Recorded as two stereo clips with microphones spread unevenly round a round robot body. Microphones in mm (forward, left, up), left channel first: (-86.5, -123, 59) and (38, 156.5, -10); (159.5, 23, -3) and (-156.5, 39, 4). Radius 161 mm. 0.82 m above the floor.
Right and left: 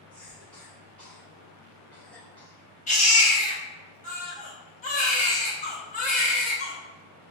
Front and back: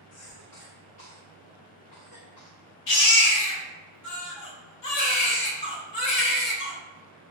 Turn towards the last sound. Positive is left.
turn(degrees=-45)